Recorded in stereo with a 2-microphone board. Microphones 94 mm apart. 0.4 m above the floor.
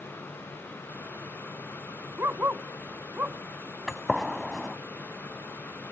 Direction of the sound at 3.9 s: Centre (ahead or behind).